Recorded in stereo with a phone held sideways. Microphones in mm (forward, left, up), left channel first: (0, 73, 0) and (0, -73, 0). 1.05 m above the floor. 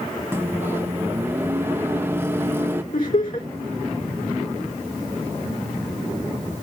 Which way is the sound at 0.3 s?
15° right (ahead or behind).